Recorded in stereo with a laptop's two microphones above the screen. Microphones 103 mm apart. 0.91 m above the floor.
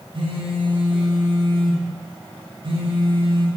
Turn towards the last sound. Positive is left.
turn(degrees=-55)  # may be behind; listen again after turning